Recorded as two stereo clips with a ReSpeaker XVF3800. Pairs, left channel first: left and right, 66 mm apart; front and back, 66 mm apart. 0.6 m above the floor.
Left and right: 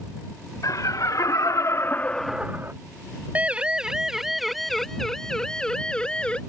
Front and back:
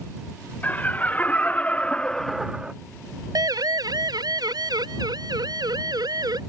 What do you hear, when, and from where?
0.6 s laughter: 65° left; by 2.7 s 110° right
3.4 s a siren: 160° right; by 6.4 s 165° left